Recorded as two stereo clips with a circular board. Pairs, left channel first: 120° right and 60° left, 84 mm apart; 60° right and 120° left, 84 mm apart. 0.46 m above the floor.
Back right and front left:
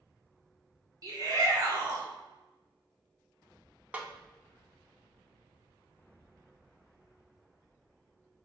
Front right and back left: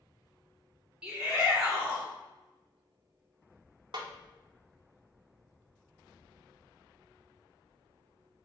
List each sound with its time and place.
1.0 s a shout: 45° left, 1.3 m
3.9 s a snare drum: 130° left, 0.5 m